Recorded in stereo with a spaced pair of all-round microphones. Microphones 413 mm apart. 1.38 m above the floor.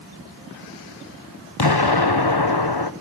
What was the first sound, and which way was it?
An explosion, 65° left (ahead or behind).